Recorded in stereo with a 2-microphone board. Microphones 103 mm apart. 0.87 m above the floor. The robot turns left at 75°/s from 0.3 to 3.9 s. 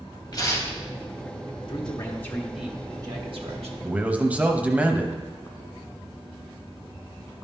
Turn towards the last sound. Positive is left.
turn(degrees=-15)  # may be behind; listen again after turning